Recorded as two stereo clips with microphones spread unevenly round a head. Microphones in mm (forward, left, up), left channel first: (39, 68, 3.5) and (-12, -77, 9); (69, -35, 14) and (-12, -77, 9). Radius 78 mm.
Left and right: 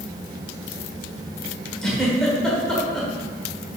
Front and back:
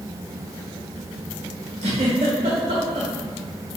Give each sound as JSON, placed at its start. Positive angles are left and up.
{"t": 1.8, "sound": "a giggle", "azimuth_deg": 155, "distance_m": 1.3}